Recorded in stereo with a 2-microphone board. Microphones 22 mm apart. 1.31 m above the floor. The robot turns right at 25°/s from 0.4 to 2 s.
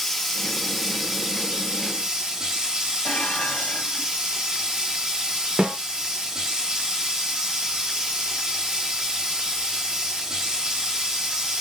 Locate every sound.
0.0 s running water: straight behind, 2 m; by 11.6 s 140° right, 2 m
3.0 s dishes clattering: 80° left, 1.6 m
5.6 s a snare drum: 65° right (ahead or behind), 1.5 m